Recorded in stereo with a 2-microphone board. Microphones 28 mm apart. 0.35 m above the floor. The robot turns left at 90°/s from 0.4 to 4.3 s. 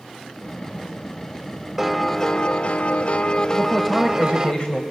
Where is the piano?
165° right, 0.9 m; by 4.5 s 30° right, 0.9 m.